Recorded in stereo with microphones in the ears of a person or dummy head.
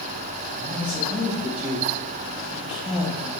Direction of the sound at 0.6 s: Centre (ahead or behind).